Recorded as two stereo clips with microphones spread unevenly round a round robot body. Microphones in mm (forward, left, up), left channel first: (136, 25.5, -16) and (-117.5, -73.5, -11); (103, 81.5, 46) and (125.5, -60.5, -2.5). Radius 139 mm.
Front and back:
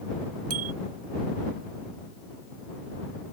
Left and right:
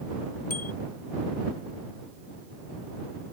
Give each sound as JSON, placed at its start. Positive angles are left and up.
{"t": 0.5, "sound": "a bicycle bell", "azimuth_deg": 160}